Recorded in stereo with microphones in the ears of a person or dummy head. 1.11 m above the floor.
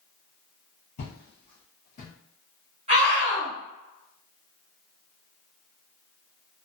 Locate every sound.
1.0 s footsteps: 40° left (ahead or behind), 1.4 m; by 2.1 s 35° left (ahead or behind), 1.3 m
2.9 s a scream: 25° right (ahead or behind), 1.3 m